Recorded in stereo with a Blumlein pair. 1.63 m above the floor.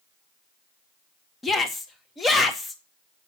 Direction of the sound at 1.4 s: 15° left.